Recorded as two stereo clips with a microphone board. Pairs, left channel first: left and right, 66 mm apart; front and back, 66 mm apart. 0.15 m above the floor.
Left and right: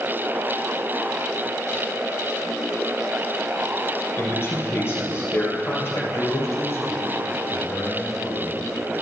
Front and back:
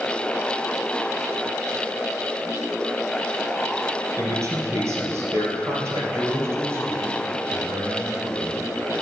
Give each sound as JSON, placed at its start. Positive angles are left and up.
{"t": 4.2, "sound": "a man speaking", "azimuth_deg": 140, "distance_m": 3.0}
{"t": 6.1, "sound": "a man speaking", "azimuth_deg": 130, "distance_m": 4.0}